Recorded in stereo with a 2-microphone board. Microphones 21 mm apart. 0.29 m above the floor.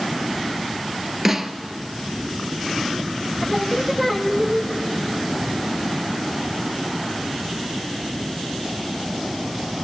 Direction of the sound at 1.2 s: 10° right (ahead or behind).